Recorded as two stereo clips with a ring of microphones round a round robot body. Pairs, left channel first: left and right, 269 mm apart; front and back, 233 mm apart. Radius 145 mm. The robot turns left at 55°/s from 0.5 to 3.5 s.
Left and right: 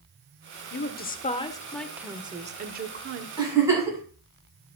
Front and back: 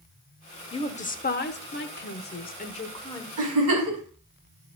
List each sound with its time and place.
0.7 s a woman speaking: 65° left, 1.0 m; by 3.3 s 75° right, 1.0 m
3.4 s a giggle: 160° right, 4.5 m; by 4.0 s 170° right, 4.5 m